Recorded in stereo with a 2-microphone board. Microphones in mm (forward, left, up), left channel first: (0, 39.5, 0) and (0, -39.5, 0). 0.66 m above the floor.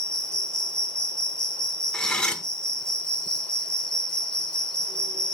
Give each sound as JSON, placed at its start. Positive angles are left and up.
{"t": 0.0, "sound": "an insect", "side_deg": 10, "distance_m": 1.3}
{"t": 1.9, "sound": "cutlery clinking", "side_deg": 10, "distance_m": 1.1}